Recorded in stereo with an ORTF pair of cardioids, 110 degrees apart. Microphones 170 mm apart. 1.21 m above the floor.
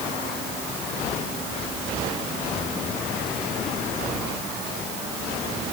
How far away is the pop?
No pop in this recording.